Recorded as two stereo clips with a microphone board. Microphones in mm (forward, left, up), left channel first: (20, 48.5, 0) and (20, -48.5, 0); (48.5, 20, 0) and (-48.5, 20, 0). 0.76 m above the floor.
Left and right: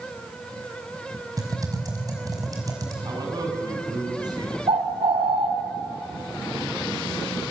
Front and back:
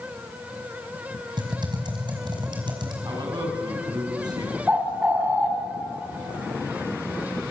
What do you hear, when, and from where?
1.4 s typing on a keyboard: 145° right, 5 m
3.0 s a man speaking: 135° right, 5 m
4.7 s a bird: 105° right, 3.5 m